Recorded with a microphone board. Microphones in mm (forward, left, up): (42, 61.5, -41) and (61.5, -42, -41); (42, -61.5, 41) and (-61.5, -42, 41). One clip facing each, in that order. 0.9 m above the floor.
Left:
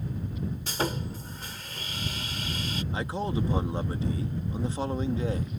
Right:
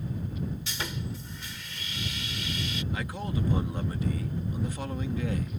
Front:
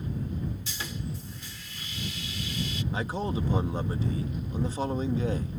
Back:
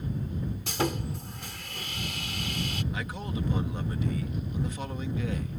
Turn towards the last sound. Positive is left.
turn(degrees=40)